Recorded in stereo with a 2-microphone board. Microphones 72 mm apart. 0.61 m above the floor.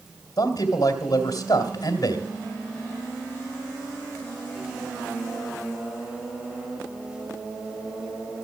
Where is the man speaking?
55° left (ahead or behind), 2.5 m.